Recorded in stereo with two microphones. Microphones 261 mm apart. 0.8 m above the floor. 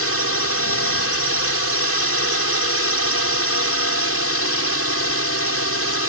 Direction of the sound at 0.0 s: 60° left (ahead or behind).